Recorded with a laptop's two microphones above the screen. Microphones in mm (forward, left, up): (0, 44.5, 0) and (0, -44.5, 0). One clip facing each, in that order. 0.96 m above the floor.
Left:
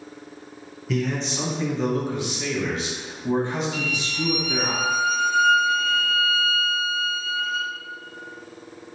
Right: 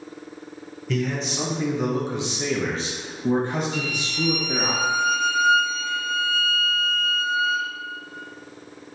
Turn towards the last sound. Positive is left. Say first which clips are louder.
# even
turn(degrees=0)  # may be behind; listen again after turning